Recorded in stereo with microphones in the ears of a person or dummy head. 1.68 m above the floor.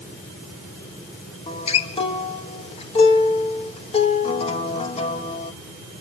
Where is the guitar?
35° left (ahead or behind), 1.5 m.